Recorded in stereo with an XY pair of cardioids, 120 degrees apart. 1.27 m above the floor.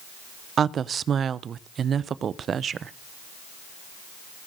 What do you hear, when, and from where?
0.6 s a woman speaking: 45° right, 0.5 m